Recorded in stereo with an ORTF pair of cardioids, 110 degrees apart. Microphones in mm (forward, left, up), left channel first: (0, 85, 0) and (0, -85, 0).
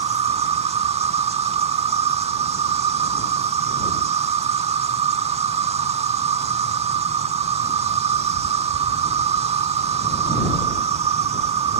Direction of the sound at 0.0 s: 40° right.